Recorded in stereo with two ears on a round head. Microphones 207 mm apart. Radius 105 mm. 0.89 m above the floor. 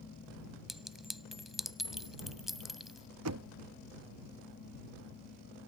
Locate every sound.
0.7 s a clink: centre (ahead or behind)
3.2 s knocking: 75° right (ahead or behind)